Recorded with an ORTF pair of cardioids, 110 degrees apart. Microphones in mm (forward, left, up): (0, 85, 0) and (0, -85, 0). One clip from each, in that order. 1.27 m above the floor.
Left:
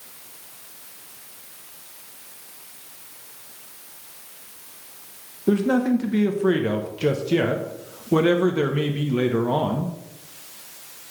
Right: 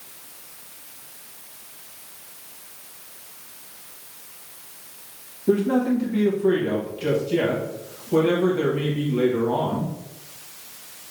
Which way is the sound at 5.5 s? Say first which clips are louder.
Even; 50° left.